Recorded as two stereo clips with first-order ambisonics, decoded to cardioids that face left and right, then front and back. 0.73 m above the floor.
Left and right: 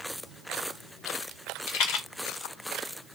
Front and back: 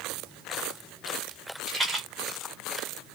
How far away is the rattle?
About 0.9 m.